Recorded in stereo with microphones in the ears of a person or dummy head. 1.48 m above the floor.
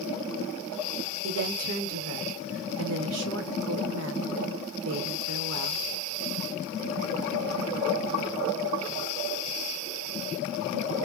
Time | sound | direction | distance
1.2 | a woman speaking | 80° right | 0.9 m